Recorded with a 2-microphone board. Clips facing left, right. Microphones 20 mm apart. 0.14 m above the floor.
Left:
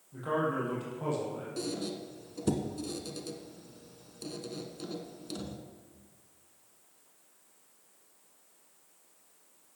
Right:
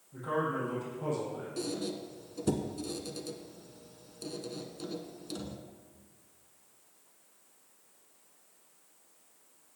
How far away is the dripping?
I don't hear dripping.